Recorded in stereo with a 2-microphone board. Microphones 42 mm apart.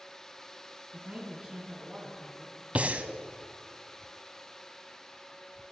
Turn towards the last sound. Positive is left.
turn(degrees=-35)  # may be behind; listen again after turning